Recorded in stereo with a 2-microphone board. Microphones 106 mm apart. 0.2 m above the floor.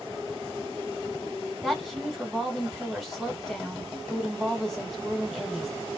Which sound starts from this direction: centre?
A woman speaking, at 1.6 s.